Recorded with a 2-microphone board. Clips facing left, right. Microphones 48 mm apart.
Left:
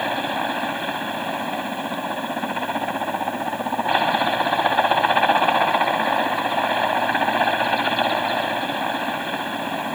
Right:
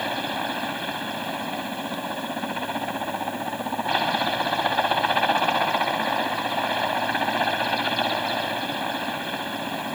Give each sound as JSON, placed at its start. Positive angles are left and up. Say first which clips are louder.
{"t": 0.0, "sound": "a helicopter", "louder": "left 4 dB", "side_deg": 15}